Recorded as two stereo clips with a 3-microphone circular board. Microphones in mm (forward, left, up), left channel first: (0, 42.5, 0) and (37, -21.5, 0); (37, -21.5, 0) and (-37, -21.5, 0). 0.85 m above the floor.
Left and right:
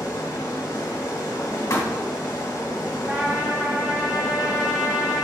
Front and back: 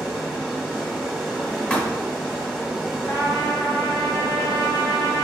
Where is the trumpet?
5° right, 2 m.